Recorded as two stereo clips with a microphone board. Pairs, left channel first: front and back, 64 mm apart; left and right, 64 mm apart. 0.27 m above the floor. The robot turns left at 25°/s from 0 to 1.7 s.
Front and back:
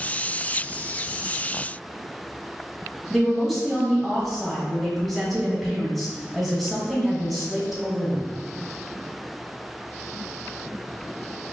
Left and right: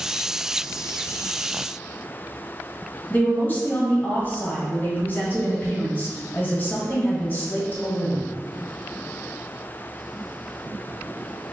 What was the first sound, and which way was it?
A woman speaking, 80° left.